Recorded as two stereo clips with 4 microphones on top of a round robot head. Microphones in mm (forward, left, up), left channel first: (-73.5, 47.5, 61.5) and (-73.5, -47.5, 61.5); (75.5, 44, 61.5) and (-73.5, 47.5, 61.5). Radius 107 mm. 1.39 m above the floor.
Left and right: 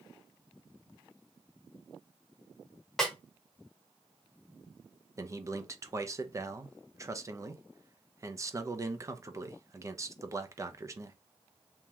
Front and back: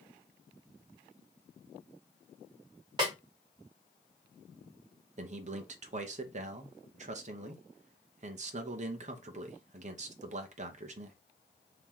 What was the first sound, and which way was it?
A snare drum, 170° left.